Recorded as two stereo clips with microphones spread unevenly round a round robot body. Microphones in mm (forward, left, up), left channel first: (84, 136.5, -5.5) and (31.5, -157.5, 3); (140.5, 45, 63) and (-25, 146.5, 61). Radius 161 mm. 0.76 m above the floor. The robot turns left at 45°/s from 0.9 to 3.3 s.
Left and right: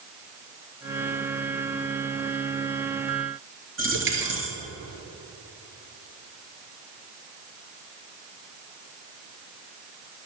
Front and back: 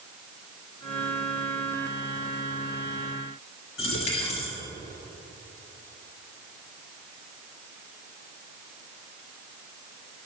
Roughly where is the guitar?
I don't hear a guitar.